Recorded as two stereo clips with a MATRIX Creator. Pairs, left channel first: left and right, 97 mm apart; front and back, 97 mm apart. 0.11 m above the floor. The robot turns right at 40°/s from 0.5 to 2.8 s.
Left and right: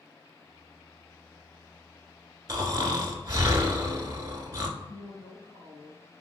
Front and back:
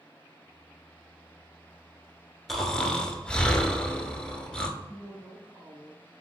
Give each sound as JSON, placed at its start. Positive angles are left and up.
{"t": 2.5, "sound": "snoring", "azimuth_deg": -85, "distance_m": 0.7}
{"t": 4.8, "sound": "a woman speaking", "azimuth_deg": 145, "distance_m": 2.0}